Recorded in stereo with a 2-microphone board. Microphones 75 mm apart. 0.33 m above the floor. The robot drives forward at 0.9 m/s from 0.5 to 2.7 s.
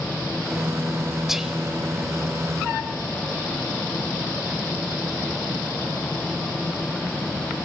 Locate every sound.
1.3 s whispering: 5° right (ahead or behind), 1.0 m